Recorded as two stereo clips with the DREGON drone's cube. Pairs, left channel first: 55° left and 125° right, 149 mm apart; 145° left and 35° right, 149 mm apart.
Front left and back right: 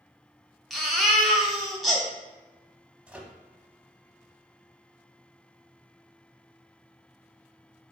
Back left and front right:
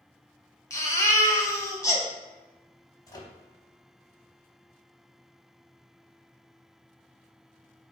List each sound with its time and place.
0.7 s a baby crying: 145° left, 0.8 m
3.1 s a microwave: 160° left, 0.8 m